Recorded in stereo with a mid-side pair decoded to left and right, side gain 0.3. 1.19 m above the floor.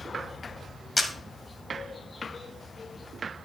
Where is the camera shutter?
40° left, 1.6 m.